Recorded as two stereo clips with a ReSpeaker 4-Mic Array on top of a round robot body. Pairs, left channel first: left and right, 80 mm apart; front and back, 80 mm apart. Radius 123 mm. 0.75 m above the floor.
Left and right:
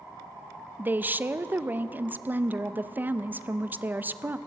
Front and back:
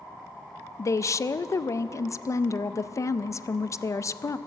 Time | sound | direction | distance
0.8 | a woman speaking | 30° right | 0.6 m